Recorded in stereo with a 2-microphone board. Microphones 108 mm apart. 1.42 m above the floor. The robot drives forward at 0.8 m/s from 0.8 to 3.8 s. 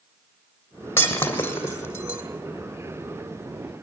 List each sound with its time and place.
1.0 s breaking glass: 20° left (ahead or behind), 2.5 m; by 2.2 s 30° left (ahead or behind), 2.0 m